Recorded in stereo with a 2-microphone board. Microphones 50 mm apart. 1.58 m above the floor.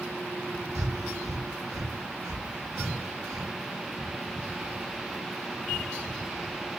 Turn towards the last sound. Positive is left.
turn(degrees=-70)  # may be behind; listen again after turning